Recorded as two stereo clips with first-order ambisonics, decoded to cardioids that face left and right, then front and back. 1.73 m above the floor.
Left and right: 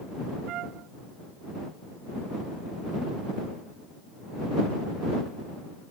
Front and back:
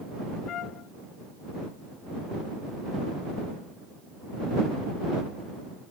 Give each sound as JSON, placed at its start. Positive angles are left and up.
{"t": 0.5, "sound": "a trumpet", "azimuth_deg": -45}